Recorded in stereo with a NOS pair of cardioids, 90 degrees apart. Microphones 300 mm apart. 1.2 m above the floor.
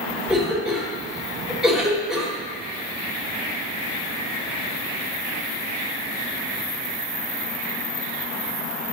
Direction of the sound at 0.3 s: Straight ahead.